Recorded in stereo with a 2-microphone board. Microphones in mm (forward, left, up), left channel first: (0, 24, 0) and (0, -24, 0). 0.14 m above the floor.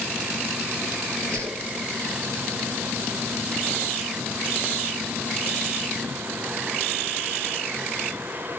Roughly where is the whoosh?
Right.